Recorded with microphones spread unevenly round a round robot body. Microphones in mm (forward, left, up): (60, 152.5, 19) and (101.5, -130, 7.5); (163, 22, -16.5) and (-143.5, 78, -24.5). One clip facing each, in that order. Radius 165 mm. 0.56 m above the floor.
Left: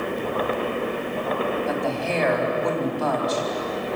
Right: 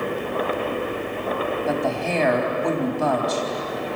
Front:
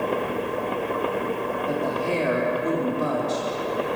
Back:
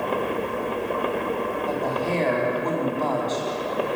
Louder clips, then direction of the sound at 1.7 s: Right 1 dB, front 2 dB; 90° right.